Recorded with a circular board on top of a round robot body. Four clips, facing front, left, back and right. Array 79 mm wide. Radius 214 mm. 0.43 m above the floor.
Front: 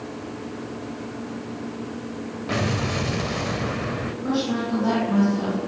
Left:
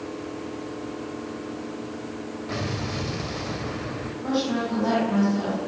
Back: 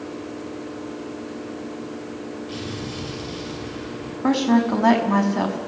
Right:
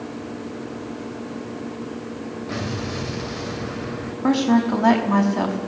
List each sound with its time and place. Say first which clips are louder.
2.5 s an explosion: right 2 dB, front 6 dB; straight ahead, 2.0 m
4.2 s a woman speaking: right 7 dB, back 7 dB; 135° right, 6 m